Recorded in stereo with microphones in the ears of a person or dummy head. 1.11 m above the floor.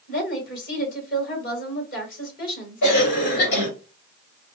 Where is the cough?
55° left (ahead or behind), 2 m.